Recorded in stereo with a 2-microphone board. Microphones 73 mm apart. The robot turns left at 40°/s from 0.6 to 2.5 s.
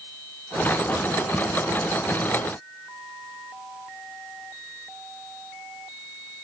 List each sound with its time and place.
Only background noise.